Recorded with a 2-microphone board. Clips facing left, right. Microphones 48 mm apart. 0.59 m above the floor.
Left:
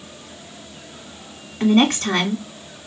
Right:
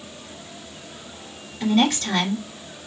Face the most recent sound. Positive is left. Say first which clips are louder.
# left 4 dB
turn(degrees=40)  # may be behind; listen again after turning